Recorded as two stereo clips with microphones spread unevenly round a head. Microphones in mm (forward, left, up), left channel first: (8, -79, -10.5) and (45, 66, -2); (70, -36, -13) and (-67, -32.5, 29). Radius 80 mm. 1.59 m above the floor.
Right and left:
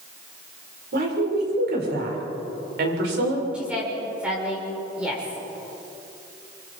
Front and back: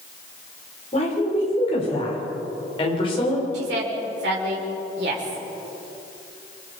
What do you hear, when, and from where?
0.9 s a woman speaking: 55° left, 6.5 m; by 3.4 s 65° left, 7.5 m
3.5 s a woman speaking: 160° left, 5.5 m